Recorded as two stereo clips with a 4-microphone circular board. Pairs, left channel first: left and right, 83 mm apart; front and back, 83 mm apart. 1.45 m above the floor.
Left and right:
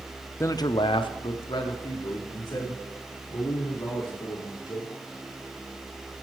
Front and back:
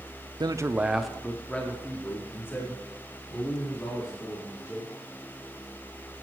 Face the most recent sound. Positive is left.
turn(degrees=55)